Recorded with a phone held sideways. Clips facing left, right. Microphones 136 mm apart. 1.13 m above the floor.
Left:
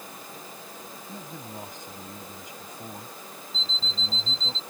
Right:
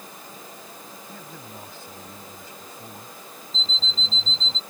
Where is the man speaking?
20° left (ahead or behind).